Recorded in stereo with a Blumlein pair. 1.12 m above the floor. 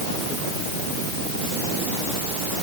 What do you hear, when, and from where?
Only background noise.